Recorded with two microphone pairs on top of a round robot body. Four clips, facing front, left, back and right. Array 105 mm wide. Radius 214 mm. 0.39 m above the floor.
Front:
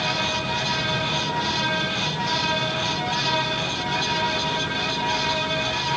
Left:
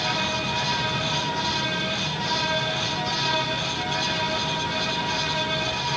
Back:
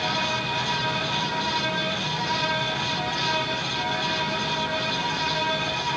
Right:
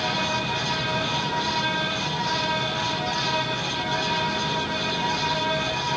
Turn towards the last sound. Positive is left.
No sound to turn to.